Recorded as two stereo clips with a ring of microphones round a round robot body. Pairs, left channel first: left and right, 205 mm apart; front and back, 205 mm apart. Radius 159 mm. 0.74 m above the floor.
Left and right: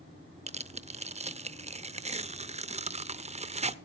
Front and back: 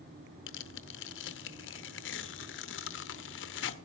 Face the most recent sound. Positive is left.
turn(degrees=-30)